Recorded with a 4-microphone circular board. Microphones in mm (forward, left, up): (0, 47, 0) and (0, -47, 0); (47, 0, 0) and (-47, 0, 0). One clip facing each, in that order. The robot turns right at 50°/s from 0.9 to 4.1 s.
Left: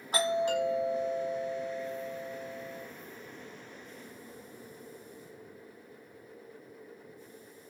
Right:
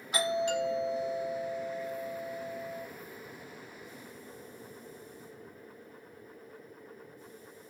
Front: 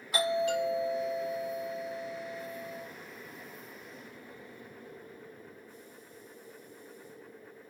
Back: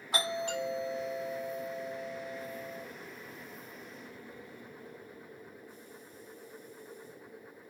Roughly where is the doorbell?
Behind left.